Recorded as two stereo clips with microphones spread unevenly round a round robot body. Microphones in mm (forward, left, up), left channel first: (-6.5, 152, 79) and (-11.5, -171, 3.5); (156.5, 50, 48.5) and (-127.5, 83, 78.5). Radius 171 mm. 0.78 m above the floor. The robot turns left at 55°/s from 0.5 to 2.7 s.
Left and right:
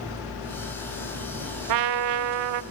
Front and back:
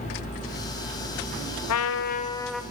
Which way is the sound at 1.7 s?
50° right.